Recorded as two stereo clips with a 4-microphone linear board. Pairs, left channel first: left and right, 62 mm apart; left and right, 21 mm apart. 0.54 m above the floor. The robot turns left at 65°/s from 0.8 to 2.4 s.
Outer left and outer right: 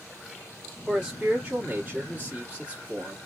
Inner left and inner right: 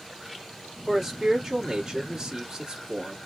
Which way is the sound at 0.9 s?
10° right (ahead or behind).